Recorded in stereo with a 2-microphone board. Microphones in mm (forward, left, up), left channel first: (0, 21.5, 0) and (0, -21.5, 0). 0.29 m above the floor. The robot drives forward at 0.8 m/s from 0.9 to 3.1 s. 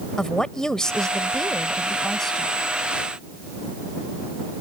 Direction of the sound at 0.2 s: 15° left (ahead or behind).